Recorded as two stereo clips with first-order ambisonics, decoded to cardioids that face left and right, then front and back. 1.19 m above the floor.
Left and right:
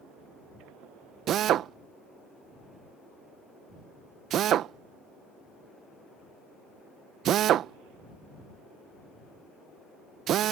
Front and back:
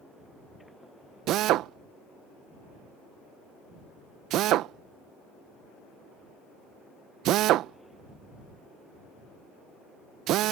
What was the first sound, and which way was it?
A drill, 140° right.